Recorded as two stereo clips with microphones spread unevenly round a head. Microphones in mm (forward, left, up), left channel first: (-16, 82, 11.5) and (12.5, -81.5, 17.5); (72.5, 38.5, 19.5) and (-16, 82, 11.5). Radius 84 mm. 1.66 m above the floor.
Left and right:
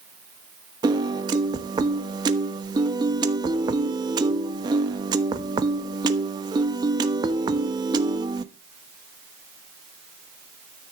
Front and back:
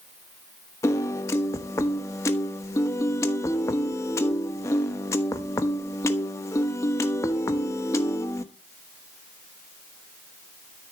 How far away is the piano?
About 1.1 m.